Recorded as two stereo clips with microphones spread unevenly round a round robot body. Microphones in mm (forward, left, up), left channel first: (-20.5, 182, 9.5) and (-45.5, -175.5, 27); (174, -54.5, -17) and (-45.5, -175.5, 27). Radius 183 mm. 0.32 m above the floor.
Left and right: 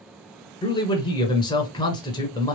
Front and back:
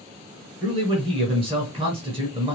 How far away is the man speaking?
About 1.3 m.